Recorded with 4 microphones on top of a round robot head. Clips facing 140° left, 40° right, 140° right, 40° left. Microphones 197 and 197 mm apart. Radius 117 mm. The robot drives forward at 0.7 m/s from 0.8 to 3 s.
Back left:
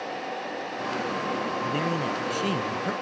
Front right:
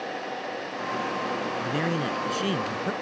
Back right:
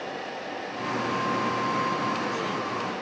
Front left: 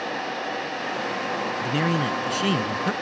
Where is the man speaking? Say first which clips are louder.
Front right 2 dB, front left 5 dB; 40° left; by 2.9 s 45° left.